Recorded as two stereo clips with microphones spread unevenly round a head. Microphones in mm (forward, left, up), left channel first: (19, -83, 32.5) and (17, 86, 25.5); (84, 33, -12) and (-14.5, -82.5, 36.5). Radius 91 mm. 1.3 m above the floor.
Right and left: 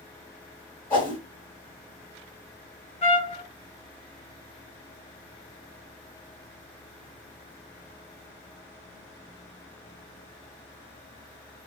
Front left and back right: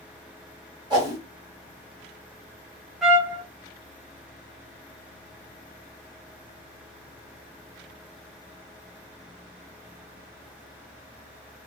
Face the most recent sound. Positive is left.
turn(degrees=-70)